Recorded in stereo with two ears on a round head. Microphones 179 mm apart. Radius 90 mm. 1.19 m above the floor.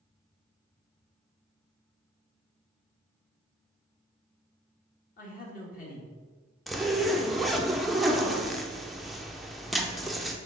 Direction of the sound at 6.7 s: Centre (ahead or behind).